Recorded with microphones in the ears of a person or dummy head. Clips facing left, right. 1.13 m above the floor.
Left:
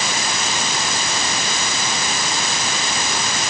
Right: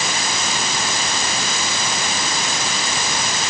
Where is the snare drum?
No snare drum in this recording.